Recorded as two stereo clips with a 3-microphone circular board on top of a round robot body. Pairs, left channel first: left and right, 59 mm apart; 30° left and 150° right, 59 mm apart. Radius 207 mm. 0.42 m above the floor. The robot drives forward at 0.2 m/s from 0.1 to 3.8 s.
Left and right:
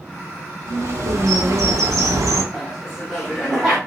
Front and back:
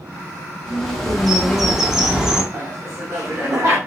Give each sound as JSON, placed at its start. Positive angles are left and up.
{"t": 0.7, "sound": "a bird", "azimuth_deg": -50, "distance_m": 1.1}
{"t": 2.5, "sound": "laughter", "azimuth_deg": -170, "distance_m": 1.1}